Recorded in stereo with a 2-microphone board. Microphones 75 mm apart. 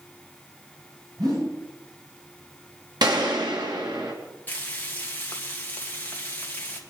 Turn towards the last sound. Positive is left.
turn(degrees=25)  # may be behind; listen again after turning